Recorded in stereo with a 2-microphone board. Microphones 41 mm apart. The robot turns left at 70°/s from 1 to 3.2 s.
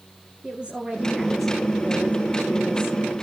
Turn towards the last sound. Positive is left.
turn(degrees=55)